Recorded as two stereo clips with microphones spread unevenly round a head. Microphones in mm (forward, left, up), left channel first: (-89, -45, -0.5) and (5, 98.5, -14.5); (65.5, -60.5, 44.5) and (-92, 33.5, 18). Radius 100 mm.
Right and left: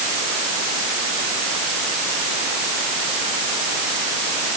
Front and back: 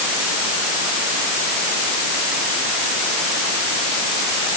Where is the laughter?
No laughter in this recording.